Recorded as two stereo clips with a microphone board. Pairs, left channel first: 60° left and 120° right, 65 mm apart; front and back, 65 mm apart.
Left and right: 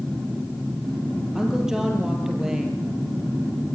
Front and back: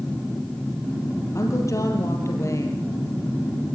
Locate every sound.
1.4 s a woman speaking: 40° right, 6 m